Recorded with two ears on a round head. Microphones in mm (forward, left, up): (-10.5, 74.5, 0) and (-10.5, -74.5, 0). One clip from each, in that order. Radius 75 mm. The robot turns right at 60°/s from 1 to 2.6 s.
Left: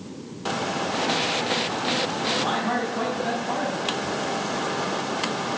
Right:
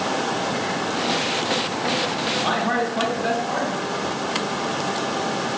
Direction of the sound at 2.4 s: 65° right (ahead or behind).